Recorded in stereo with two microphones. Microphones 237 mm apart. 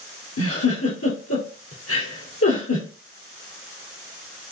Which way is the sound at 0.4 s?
80° left.